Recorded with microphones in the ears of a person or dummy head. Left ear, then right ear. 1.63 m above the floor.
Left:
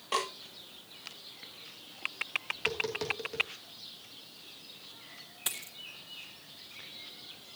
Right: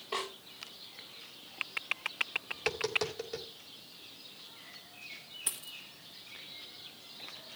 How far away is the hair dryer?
I don't hear a hair dryer.